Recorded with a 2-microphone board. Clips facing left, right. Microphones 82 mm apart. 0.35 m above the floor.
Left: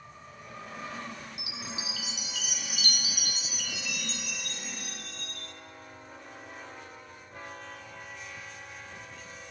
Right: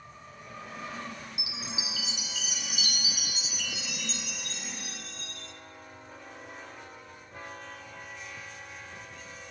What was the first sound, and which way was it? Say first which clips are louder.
A chime: even; 50° left (ahead or behind).